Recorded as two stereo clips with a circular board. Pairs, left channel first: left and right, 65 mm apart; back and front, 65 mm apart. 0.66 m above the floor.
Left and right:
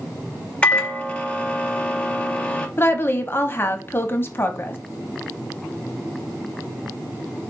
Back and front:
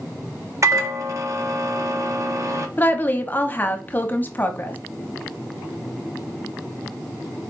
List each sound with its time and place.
0.6 s a microwave: 25° left, 0.6 m
2.8 s a woman speaking: 135° left, 0.7 m